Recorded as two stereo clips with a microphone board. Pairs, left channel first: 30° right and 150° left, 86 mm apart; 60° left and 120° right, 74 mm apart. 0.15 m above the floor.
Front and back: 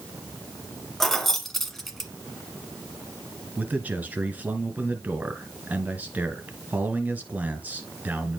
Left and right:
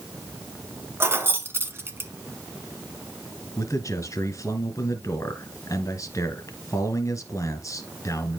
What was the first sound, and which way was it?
Keys jangling, 115° right.